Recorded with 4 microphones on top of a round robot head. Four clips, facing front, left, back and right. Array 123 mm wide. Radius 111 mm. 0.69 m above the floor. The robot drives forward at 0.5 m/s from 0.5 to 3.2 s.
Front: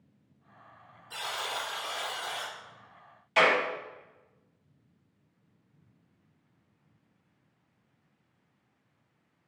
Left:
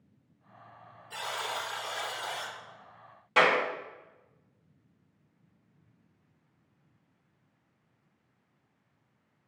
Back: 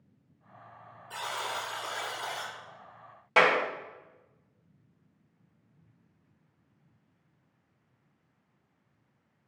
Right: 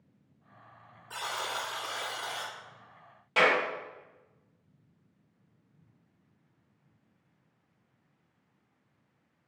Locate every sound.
1.1 s a buzzer: 115° right, 1.3 m; by 2.5 s 140° right, 1.8 m
3.4 s a clap: straight behind, 2 m